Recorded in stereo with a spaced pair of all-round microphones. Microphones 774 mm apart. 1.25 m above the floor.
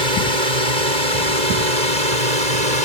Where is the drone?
60° right (ahead or behind); by 2.9 s 55° right (ahead or behind).